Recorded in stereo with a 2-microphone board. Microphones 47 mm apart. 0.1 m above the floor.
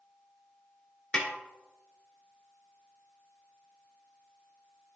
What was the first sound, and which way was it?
A snare drum, 20° left (ahead or behind).